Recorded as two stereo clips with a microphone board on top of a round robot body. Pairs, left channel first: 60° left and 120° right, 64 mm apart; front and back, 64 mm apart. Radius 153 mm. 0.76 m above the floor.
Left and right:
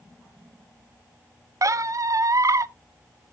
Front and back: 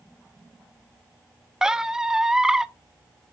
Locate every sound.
1.6 s a squeak: 100° right, 0.5 m